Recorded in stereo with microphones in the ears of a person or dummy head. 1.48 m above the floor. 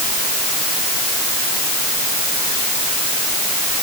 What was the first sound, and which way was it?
Only background noise.